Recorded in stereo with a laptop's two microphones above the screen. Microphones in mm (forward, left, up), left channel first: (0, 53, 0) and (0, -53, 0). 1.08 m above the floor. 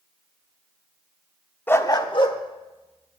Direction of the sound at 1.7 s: 20° left (ahead or behind).